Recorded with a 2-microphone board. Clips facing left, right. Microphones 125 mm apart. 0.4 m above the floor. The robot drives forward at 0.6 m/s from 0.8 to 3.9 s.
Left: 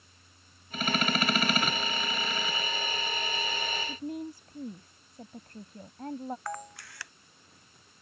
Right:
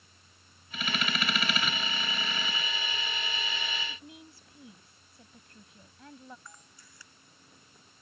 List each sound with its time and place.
3.9 s a woman speaking: 50° left (ahead or behind)
6.5 s a camera shutter: 75° left (ahead or behind)